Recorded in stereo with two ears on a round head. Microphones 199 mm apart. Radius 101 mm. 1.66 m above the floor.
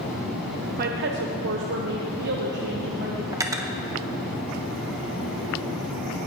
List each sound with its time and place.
0.8 s a woman speaking: 45° right (ahead or behind), 0.8 m; by 3.2 s 40° right (ahead or behind), 1.6 m
3.3 s cutlery clinking: 15° right (ahead or behind), 0.8 m